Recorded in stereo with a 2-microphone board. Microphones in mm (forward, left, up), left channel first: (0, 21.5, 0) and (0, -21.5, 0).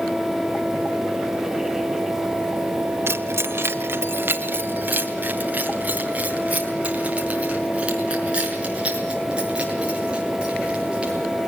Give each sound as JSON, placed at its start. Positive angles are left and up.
{"t": 3.1, "sound": "keys jangling", "side_deg": -75, "distance_m": 1.6}